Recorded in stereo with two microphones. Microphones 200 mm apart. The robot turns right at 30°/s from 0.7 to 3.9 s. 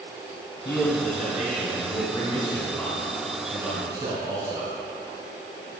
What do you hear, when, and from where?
0.7 s a man speaking: 105° left, 2.5 m; by 4.7 s 155° right, 2.5 m